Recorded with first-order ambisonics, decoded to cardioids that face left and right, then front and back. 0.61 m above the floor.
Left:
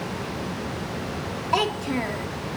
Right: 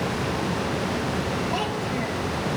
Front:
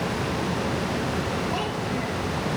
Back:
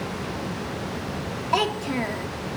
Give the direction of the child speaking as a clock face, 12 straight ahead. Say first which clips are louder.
Left 3 dB, back 4 dB; 7 o'clock.